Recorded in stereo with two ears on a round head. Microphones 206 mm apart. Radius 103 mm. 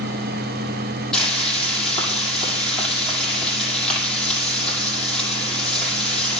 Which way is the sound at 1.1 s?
5° left (ahead or behind).